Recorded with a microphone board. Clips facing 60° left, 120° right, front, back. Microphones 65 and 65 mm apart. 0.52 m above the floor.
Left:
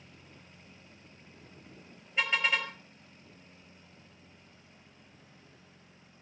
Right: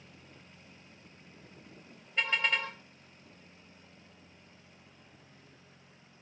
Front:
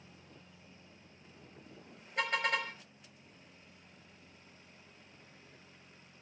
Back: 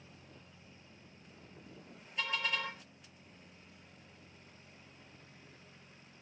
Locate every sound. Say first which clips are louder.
2.2 s a car horn: left 1 dB, front 4 dB; 25° right, 5.5 m